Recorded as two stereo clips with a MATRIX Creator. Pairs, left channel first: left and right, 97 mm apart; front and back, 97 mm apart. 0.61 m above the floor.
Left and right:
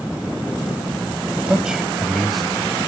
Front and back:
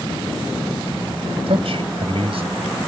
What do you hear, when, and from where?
1.5 s a man speaking: 170° right; by 2.5 s 175° left